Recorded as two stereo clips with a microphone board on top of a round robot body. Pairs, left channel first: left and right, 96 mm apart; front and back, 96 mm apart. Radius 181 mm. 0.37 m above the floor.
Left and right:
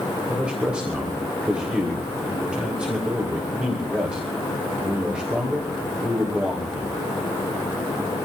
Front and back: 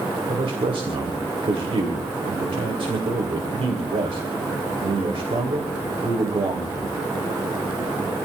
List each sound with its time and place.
0.3 s a man speaking: 170° right, 3 m